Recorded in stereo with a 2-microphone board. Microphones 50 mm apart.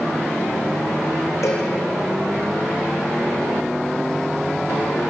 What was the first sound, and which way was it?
A cowbell, 70° left (ahead or behind).